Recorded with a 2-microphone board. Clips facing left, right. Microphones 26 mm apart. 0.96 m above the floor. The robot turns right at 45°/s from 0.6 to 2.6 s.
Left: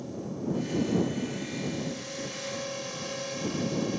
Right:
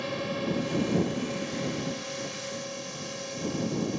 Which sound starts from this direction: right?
A drone, at 0.0 s.